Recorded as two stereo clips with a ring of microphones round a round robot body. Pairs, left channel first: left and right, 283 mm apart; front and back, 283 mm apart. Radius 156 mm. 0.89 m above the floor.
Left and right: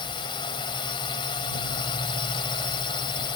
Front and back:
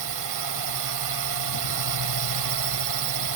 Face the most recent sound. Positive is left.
turn(degrees=165)